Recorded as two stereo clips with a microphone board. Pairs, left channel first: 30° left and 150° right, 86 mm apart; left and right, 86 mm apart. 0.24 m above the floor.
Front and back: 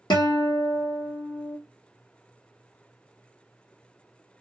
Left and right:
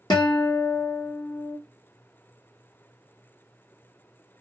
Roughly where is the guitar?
Ahead left.